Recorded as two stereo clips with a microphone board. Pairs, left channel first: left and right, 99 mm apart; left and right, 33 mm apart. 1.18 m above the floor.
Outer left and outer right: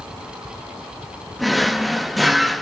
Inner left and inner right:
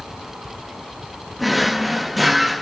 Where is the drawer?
Centre (ahead or behind), 0.6 m.